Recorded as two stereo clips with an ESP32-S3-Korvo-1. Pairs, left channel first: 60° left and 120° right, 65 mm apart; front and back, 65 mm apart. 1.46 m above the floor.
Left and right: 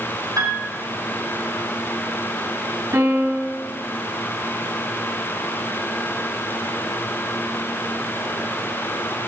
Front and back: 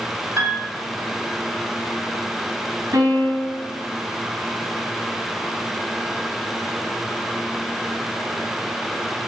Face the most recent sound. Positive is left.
turn(degrees=-155)